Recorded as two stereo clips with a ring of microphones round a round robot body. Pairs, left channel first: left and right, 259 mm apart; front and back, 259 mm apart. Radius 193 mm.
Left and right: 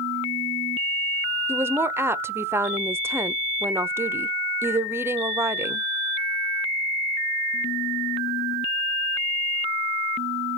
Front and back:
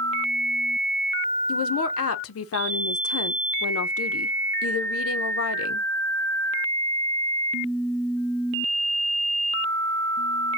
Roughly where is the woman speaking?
Ahead.